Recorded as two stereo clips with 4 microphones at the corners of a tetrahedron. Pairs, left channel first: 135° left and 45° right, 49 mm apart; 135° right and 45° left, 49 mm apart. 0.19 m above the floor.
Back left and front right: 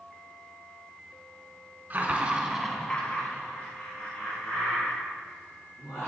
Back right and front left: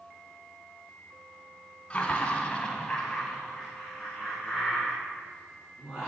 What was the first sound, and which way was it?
Laughter, 80° right.